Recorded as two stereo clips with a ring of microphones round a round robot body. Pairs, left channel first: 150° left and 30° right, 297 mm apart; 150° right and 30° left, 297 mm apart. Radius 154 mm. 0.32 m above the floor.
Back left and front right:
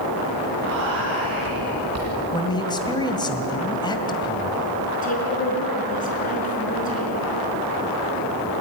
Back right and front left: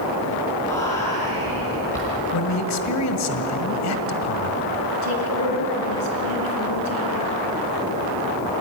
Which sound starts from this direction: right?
Whispering, at 0.7 s.